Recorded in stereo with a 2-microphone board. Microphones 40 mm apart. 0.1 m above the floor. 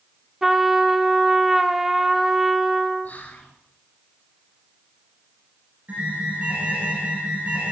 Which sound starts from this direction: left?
Whispering, at 3.0 s.